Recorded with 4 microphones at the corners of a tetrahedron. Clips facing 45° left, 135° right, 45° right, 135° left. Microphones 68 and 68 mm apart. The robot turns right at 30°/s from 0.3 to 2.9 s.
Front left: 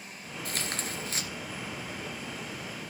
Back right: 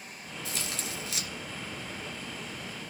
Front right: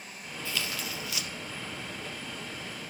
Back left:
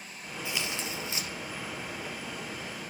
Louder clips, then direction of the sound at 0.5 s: Front left 2 dB, even; 65° left.